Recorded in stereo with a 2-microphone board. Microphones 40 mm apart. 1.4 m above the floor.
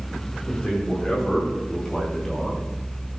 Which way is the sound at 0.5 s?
20° left (ahead or behind).